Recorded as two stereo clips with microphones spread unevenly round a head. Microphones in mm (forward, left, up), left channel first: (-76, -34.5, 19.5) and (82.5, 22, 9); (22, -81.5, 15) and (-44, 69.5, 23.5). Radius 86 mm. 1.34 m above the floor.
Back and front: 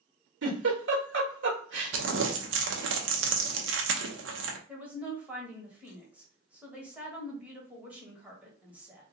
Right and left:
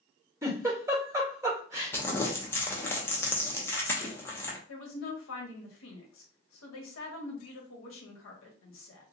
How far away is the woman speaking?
About 1.3 m.